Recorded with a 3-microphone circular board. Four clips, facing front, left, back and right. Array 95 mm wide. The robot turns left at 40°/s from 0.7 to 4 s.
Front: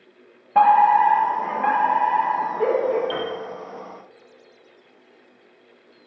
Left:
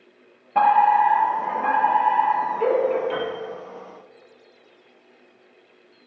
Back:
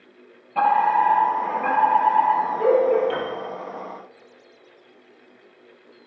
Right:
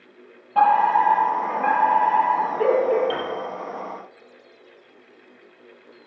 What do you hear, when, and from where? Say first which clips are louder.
0.6 s a fire alarm: left 1 dB, front 4 dB; 10° left, 6.5 m; by 3.0 s 80° right, 6.5 m
3.1 s a piano: left 1 dB, even; 95° right, 4.5 m; by 3.3 s 105° right, 4.5 m